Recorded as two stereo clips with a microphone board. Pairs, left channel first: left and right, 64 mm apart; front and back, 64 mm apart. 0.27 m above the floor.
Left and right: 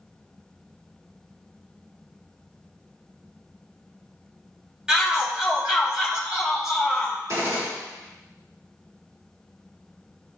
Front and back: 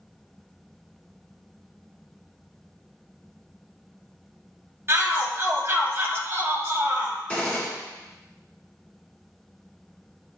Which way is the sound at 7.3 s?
70° right.